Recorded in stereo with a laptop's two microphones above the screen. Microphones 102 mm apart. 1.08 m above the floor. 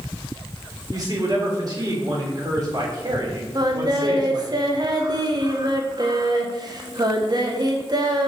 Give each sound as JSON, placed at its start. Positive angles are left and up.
{"t": 0.9, "sound": "a man speaking", "side_deg": -40, "distance_m": 3.0}
{"t": 3.5, "sound": "singing", "side_deg": -40, "distance_m": 0.9}